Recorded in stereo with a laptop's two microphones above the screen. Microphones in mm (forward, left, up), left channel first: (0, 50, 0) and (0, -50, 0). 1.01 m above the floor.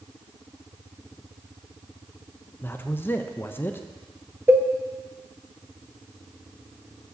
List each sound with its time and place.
2.6 s a man speaking: 20° left (ahead or behind), 0.6 m
4.5 s a cowbell: 25° right (ahead or behind), 0.5 m